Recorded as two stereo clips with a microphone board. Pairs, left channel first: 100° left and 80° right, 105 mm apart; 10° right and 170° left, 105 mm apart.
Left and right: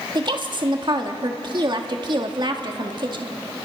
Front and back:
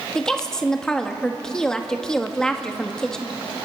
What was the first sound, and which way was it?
A woman speaking, 90° right.